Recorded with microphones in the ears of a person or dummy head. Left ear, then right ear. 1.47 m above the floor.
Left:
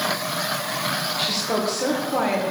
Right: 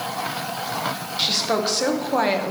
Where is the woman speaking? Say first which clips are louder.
Right 6 dB; 10° right (ahead or behind), 1.3 m; by 2.5 s 40° right (ahead or behind), 1.4 m.